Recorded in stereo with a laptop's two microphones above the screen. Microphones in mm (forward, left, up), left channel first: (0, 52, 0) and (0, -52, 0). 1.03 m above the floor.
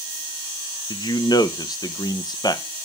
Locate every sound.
0.9 s a man speaking: 40° left (ahead or behind), 0.5 m